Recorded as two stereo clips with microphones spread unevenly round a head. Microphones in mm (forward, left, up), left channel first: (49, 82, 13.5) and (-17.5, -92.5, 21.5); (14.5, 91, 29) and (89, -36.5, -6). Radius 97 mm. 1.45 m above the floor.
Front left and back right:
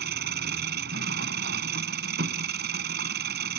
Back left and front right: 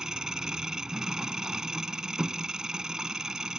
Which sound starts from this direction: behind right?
An engine running, at 0.0 s.